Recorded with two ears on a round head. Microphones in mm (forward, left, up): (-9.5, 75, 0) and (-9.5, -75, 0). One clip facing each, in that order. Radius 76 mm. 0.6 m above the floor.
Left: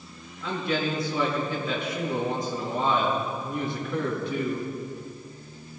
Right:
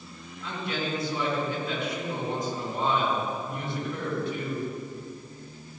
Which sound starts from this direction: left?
A man speaking, at 0.4 s.